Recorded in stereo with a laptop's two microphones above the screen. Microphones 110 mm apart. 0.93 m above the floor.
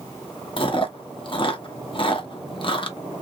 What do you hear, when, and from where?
0.6 s chewing: 50° left (ahead or behind), 0.8 m